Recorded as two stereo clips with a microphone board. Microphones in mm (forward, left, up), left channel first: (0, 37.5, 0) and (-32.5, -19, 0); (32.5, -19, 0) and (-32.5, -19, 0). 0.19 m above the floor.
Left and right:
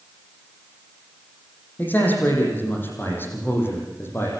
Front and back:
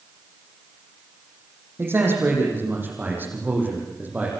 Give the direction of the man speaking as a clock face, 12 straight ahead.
8 o'clock.